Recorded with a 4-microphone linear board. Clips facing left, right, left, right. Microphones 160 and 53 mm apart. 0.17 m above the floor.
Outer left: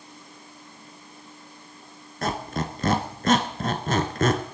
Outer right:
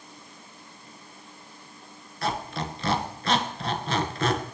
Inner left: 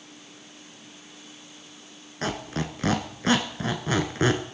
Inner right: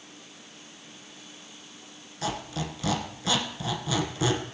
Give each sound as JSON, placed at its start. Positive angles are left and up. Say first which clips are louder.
{"t": 2.2, "sound": "a squeak", "louder": "outer left 2 dB, inner left 2 dB", "side_deg": 50, "distance_m": 1.4}